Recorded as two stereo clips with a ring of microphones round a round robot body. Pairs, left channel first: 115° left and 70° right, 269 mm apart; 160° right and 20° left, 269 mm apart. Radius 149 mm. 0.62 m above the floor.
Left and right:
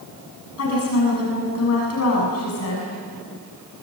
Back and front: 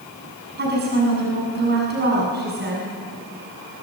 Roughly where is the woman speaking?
Left.